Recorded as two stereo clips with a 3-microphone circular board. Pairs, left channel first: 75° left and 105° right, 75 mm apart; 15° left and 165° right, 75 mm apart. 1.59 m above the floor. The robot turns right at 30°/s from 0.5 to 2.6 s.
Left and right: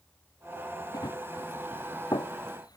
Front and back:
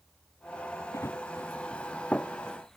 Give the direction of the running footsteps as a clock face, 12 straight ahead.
10 o'clock.